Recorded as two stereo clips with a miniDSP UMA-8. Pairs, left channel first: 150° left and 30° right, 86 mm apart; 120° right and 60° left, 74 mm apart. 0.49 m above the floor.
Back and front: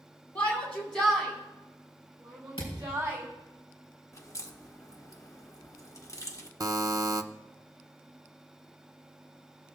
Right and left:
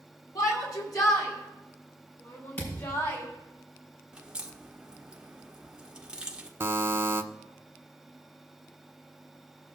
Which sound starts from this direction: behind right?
A shout, at 0.3 s.